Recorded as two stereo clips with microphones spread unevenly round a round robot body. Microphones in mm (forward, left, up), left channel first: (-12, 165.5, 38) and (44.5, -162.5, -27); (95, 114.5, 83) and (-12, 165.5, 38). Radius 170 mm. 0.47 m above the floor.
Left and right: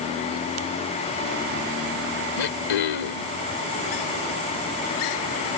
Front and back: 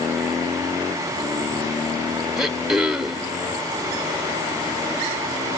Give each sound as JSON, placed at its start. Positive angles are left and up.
{"t": 2.4, "sound": "throat clearing", "azimuth_deg": 80}